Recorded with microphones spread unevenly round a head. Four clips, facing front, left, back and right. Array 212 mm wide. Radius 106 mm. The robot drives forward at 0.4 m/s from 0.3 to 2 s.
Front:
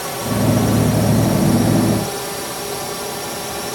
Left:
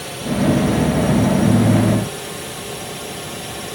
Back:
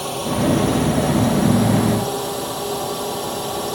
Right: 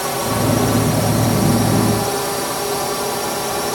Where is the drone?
110° right; by 3.8 s 115° right.